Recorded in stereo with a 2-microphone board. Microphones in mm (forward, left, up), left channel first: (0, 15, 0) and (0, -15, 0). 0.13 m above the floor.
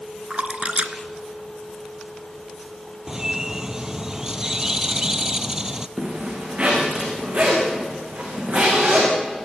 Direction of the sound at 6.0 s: 40° right (ahead or behind).